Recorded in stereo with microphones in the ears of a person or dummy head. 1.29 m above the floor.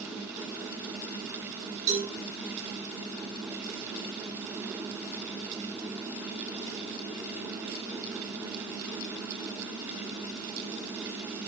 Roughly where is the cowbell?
Right.